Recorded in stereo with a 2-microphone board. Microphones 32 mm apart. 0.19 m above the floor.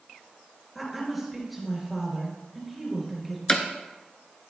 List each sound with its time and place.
0.8 s a woman speaking: 5° right (ahead or behind), 3 m
3.5 s hammering: 30° left (ahead or behind), 0.8 m